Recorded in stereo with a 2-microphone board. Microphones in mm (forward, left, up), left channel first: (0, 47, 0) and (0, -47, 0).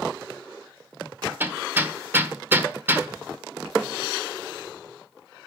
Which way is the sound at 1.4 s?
25° right (ahead or behind).